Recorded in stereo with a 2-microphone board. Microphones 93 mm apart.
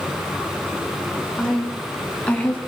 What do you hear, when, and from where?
1.4 s a woman speaking: 5° left (ahead or behind), 5 m; by 2.6 s 20° left (ahead or behind), 4 m